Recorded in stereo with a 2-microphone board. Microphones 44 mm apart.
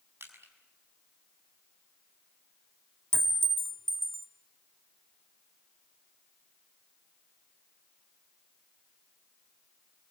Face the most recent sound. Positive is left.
turn(degrees=-65)  # may be behind; listen again after turning